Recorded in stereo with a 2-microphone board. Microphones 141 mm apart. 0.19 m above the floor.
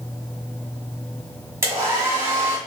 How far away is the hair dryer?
About 1.2 m.